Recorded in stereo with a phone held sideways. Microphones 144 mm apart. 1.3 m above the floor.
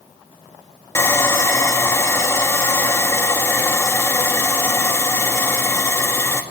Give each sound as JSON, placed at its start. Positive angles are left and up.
{"t": 0.9, "sound": "sawing", "side_deg": 15, "distance_m": 2.5}